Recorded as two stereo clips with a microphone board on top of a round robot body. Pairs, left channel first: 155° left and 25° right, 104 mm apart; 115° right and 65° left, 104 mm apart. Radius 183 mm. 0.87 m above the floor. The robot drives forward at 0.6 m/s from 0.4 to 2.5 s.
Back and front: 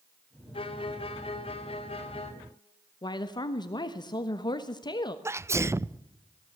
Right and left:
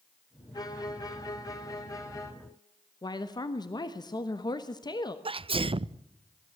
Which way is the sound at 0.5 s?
165° right.